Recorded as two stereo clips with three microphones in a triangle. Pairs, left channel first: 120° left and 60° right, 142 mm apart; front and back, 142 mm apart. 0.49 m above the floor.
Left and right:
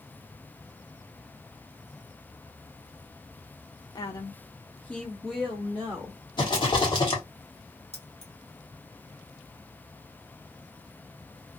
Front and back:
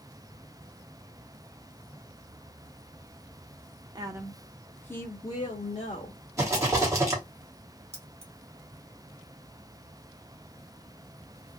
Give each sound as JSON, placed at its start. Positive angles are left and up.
{"t": 4.0, "sound": "a woman speaking", "azimuth_deg": 155, "distance_m": 0.7}
{"t": 6.4, "sound": "a rattle", "azimuth_deg": 135, "distance_m": 1.4}
{"t": 7.9, "sound": "keys jangling", "azimuth_deg": 150, "distance_m": 1.3}